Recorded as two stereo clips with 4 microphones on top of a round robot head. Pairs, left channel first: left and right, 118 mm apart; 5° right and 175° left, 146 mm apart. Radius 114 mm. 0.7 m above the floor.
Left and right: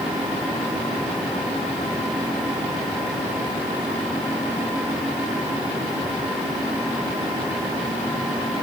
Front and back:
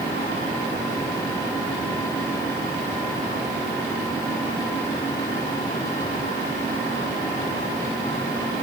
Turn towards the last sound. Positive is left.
No sound to turn to.